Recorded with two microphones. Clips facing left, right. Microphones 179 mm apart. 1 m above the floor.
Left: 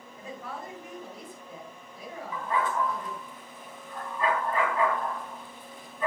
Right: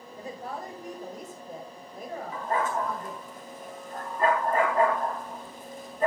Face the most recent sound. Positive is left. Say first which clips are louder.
# even
turn(degrees=-45)  # may be behind; listen again after turning